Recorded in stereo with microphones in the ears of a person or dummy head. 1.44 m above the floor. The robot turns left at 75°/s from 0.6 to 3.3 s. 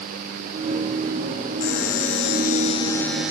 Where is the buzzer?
120° left; by 3.3 s 5° right.